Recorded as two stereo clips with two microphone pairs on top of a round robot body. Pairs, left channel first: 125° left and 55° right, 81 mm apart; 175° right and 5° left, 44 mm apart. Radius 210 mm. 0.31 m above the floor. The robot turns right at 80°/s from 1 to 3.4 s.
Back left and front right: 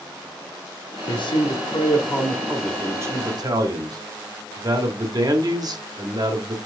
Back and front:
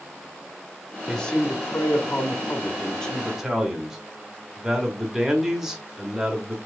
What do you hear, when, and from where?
1.1 s a man speaking: 100° left, 1.6 m; by 6.6 s 70° right, 1.6 m